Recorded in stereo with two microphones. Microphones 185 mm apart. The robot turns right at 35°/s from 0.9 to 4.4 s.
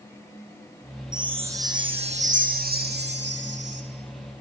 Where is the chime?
175° right, 3 m; by 3.8 s 80° right, 3 m.